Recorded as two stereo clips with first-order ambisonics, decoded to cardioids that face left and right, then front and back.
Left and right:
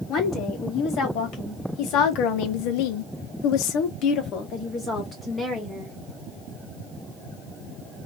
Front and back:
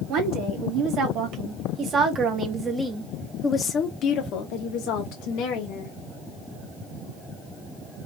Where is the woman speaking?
140° left, 1.9 m; by 6.0 s 10° left, 1.4 m.